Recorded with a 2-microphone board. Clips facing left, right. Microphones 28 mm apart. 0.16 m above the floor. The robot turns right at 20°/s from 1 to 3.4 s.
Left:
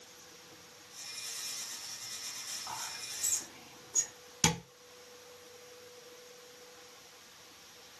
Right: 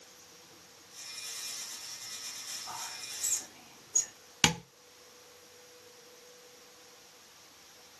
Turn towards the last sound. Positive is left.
turn(degrees=-45)  # may be behind; listen again after turning